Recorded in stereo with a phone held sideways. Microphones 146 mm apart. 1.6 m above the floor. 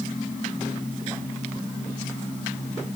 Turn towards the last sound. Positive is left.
No sound to turn to.